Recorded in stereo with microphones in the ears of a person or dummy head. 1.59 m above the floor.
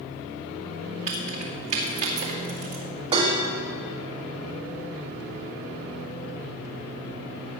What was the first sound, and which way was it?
Keys jangling, 40° right (ahead or behind).